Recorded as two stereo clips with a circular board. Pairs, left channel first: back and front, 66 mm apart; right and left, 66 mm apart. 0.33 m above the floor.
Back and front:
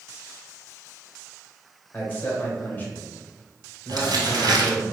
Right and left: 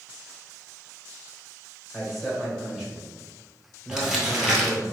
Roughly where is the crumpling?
Ahead.